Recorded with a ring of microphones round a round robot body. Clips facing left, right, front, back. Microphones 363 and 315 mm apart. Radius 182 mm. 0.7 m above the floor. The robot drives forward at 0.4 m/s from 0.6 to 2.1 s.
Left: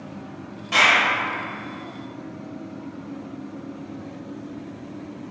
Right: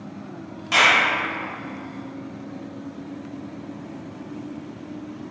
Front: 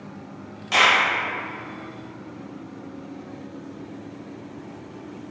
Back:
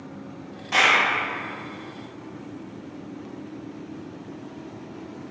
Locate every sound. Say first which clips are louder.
0.7 s a clap: right 1 dB, front 1 dB; 35° right, 1.5 m